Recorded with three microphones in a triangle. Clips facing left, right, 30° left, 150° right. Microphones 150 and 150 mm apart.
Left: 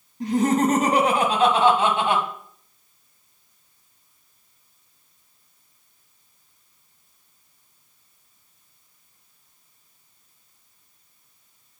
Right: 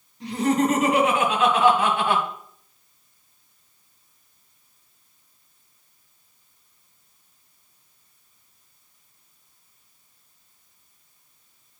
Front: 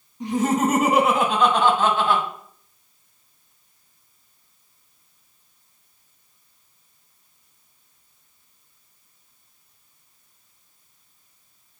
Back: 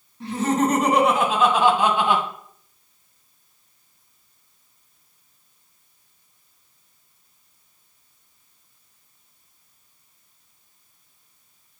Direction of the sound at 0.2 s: 100° left.